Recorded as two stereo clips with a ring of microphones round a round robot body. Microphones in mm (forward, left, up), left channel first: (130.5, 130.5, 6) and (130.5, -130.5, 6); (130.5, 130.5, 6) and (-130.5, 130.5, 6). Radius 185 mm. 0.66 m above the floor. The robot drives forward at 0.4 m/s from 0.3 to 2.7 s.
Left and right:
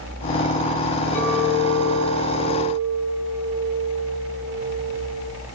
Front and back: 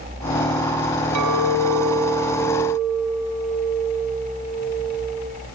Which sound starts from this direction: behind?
A clink, at 1.1 s.